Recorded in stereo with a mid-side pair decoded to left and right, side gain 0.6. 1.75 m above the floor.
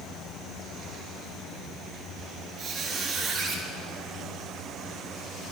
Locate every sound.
2.6 s a squeak: 50° right, 2 m